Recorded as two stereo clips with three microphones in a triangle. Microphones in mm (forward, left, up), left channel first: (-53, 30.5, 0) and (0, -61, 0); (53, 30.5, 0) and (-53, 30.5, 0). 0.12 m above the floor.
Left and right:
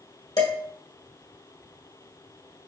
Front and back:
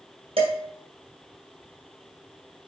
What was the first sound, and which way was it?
Dishes clattering, 165° left.